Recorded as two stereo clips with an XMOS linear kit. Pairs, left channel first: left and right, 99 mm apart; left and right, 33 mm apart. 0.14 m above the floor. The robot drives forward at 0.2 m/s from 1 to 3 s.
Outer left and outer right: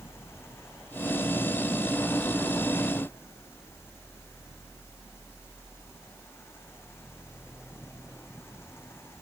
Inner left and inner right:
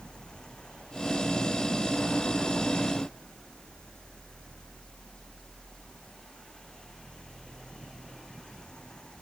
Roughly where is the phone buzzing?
I don't hear a phone buzzing.